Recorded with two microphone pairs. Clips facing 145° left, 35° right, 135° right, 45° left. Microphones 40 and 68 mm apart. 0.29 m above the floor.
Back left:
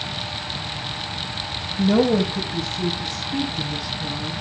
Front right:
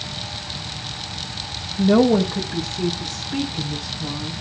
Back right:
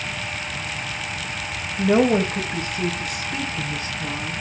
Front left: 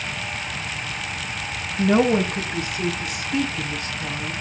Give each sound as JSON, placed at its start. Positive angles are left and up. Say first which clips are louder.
{"t": 1.8, "sound": "a woman speaking", "louder": "front right 2 dB, back right 1 dB", "azimuth_deg": -70, "distance_m": 1.3}